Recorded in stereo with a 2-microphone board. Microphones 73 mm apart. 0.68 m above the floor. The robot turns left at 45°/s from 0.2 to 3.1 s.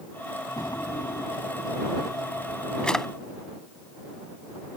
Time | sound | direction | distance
0.6 | a drawer | 60° left (ahead or behind) | ?